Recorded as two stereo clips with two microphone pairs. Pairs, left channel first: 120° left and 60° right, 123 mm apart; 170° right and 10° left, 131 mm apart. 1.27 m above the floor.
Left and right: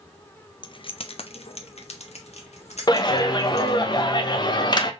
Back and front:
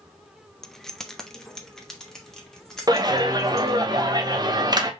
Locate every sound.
0.6 s keys jangling: 105° left, 0.6 m
2.9 s a clap: 70° left, 0.9 m